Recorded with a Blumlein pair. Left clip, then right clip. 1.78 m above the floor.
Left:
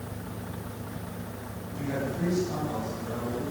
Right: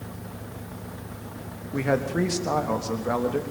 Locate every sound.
1.7 s a man speaking: 50° right, 3 m